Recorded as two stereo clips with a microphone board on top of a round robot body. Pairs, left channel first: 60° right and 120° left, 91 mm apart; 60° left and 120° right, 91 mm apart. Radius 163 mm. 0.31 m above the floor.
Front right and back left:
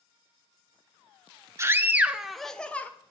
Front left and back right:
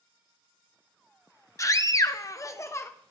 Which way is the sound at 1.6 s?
85° left.